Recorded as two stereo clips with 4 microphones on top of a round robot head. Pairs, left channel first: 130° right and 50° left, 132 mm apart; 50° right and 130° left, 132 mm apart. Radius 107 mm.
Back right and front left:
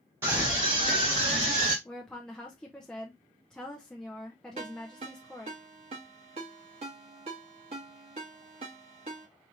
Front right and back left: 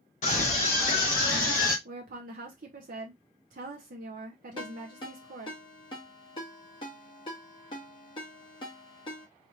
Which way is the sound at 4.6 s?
5° left.